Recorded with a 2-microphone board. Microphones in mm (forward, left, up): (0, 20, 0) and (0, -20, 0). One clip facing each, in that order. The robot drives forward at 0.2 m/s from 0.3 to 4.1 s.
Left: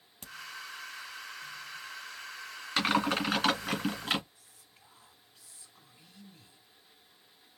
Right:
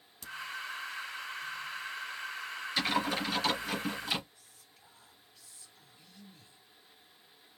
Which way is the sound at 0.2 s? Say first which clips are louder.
Right 3 dB; 40° left (ahead or behind).